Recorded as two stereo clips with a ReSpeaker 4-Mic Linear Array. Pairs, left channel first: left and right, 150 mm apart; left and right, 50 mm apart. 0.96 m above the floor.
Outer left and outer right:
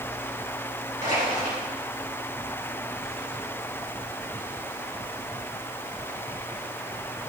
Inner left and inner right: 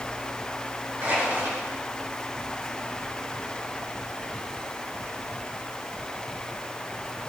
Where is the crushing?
55° right (ahead or behind), 3 m.